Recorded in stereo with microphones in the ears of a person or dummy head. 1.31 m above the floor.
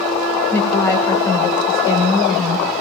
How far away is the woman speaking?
About 4.5 m.